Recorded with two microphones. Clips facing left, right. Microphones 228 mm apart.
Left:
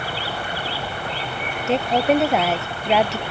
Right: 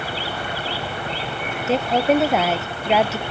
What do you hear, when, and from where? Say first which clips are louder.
1.7 s a woman speaking: even; centre (ahead or behind)